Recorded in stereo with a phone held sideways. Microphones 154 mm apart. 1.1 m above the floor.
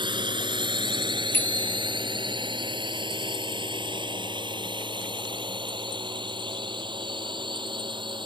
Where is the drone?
30° right (ahead or behind).